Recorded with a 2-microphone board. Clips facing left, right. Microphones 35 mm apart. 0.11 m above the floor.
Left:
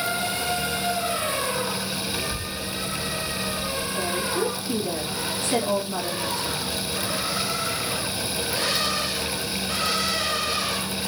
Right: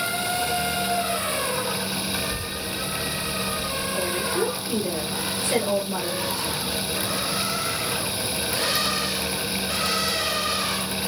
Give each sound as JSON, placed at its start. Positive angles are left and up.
{"t": 2.1, "sound": "a child speaking", "side_deg": 35, "distance_m": 1.4}
{"t": 4.0, "sound": "a woman speaking", "side_deg": -15, "distance_m": 2.5}